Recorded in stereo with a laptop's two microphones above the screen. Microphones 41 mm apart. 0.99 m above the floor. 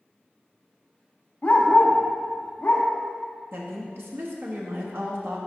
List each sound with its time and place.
1.4 s a dog barking: 40° left (ahead or behind), 0.7 m
3.5 s a woman speaking: 70° right (ahead or behind), 1.0 m